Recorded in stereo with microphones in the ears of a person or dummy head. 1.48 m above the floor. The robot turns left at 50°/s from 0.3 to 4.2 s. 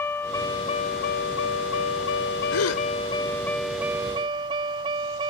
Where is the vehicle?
170° left; by 5.3 s 25° right.